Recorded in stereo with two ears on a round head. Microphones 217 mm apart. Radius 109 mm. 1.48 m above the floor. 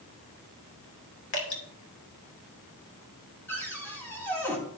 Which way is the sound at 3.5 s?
10° left (ahead or behind).